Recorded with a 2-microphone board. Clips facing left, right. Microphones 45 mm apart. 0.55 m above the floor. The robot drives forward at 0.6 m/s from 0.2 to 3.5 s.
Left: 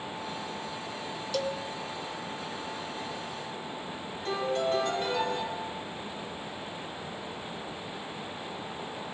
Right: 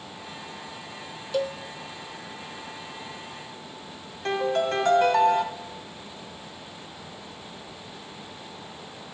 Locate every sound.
1.3 s a cowbell: 20° right (ahead or behind), 0.5 m; by 1.6 s 15° right (ahead or behind), 0.7 m
4.2 s a piano: 70° right (ahead or behind), 1.4 m